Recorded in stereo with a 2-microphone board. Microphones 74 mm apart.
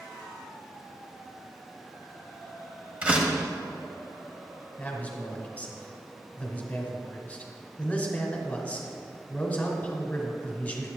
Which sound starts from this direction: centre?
A door slam, at 3.0 s.